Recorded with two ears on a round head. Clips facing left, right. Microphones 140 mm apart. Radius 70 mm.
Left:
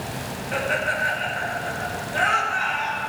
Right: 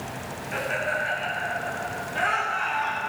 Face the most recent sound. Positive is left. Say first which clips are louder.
# left 3 dB
turn(degrees=55)  # may be behind; listen again after turning